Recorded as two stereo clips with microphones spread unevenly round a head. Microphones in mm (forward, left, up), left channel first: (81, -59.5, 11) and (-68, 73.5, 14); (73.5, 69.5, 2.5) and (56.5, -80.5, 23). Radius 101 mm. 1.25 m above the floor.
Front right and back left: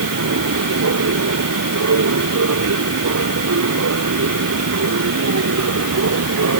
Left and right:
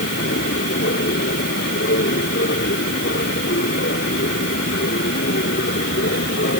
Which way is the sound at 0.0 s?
125° left.